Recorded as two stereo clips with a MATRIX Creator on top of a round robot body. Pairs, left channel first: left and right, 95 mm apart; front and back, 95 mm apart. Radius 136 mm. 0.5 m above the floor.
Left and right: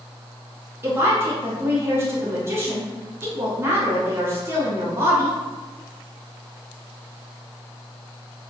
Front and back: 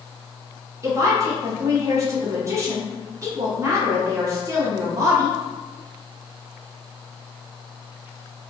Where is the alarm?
I don't hear an alarm.